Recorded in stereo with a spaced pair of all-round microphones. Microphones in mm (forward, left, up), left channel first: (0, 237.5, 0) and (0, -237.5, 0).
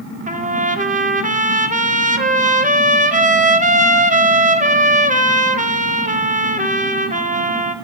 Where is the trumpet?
15° right (ahead or behind), 1.0 m.